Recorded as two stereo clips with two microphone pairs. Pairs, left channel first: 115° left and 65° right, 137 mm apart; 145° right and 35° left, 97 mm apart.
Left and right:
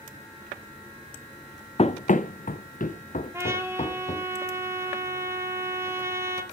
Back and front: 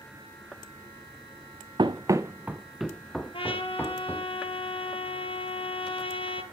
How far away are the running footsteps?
About 0.7 m.